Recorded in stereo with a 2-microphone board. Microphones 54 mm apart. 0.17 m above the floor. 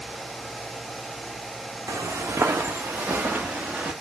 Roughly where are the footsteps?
Right.